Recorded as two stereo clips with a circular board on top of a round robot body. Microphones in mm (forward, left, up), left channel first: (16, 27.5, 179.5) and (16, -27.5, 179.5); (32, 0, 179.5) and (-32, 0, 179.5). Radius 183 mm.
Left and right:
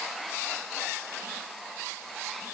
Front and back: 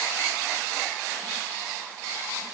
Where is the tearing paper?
I don't hear tearing paper.